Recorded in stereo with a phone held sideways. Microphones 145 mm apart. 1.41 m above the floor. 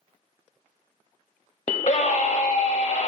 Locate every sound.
1.7 s a scream: 40° left (ahead or behind), 0.7 m